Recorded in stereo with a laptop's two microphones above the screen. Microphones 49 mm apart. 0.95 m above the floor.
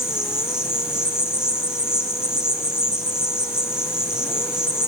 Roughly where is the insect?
Centre.